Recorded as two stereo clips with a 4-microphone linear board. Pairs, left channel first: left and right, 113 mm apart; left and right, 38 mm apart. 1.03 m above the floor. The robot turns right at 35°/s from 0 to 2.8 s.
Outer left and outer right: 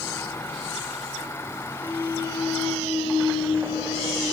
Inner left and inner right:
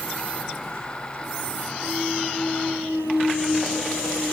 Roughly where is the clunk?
Ahead left.